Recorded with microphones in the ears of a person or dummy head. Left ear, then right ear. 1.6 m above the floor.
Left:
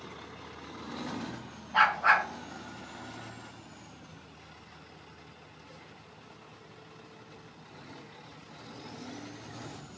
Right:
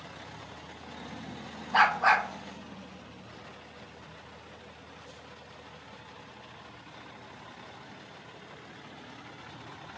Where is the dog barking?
60° right (ahead or behind), 2 m.